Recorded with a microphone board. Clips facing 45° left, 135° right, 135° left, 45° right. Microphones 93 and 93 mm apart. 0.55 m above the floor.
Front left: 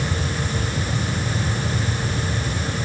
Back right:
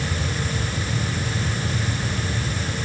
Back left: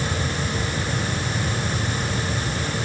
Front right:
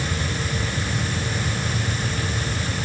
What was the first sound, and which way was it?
Only background noise.